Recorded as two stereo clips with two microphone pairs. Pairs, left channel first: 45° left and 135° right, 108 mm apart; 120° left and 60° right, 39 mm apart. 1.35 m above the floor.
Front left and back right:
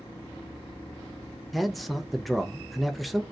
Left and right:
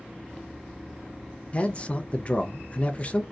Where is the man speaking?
130° left, 0.5 m.